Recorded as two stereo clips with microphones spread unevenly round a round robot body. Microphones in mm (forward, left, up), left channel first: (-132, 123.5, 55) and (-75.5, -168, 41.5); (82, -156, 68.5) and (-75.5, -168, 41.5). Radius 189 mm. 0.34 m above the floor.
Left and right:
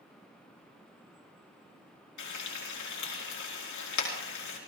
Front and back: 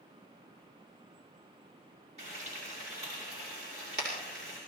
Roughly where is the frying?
Behind left.